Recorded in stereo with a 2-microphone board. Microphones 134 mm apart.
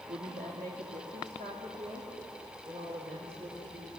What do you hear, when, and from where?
0.1 s a woman speaking: 80° right, 2.5 m; by 3.9 s 50° right (ahead or behind), 4.5 m